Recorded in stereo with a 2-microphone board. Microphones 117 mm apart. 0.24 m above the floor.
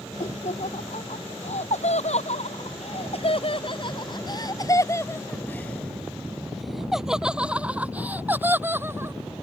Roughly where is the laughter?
Left.